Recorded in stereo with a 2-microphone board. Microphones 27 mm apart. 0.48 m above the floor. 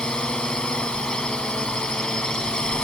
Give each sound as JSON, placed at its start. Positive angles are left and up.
{"t": 0.0, "sound": "a drone", "side_deg": 35}